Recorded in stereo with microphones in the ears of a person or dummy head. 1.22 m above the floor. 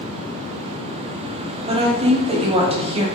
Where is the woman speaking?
25° right (ahead or behind), 0.6 m.